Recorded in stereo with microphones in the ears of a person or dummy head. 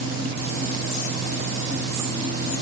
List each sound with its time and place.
0.0 s a fan: 80° right, 7.5 m